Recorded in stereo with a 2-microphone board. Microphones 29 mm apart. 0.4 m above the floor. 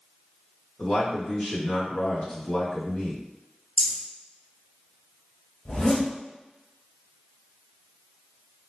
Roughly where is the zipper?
Left.